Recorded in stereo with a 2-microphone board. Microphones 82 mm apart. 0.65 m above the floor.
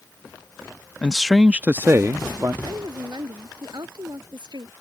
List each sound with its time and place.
1.0 s a man speaking: 15° left (ahead or behind); by 2.5 s 45° right (ahead or behind)
2.6 s a woman speaking: 60° right (ahead or behind)